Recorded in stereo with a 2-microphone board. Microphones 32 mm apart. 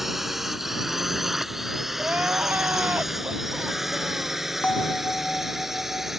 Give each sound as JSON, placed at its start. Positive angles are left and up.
{"t": 0.0, "sound": "a drone", "side_deg": -5}
{"t": 2.0, "sound": "crying", "side_deg": -75}
{"t": 4.6, "sound": "a bell", "side_deg": 35}